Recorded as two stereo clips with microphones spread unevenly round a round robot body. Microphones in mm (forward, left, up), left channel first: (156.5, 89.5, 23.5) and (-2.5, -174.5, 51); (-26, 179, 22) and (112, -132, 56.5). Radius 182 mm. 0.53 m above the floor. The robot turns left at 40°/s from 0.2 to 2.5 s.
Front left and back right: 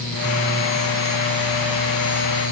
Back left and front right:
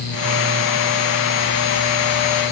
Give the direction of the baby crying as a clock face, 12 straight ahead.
No baby crying in this recording.